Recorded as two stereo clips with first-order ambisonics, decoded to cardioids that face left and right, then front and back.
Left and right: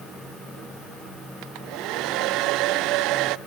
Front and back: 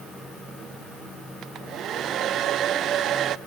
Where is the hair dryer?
125° right, 0.5 m.